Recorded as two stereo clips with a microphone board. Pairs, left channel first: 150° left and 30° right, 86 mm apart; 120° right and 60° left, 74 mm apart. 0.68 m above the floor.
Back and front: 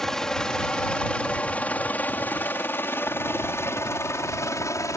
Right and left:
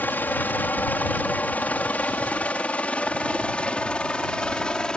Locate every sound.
0.0 s a helicopter: 135° right; by 5.0 s 165° left